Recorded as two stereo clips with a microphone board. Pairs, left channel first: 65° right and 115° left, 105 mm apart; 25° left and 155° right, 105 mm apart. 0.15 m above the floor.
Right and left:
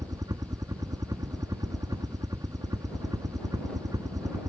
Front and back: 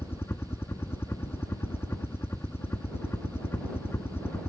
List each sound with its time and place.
0.0 s a helicopter: 80° left